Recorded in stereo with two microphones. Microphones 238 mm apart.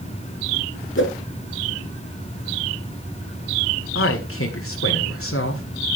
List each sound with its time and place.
1.0 s a whoosh: 55° left (ahead or behind), 1.8 m
4.0 s a man speaking: 65° left (ahead or behind), 1.7 m